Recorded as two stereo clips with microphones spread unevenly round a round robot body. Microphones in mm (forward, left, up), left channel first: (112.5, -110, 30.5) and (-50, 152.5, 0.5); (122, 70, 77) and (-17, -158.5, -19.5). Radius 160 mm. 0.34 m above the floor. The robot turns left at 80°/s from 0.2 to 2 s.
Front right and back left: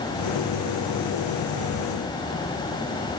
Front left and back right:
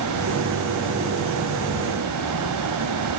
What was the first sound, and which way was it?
Only background noise.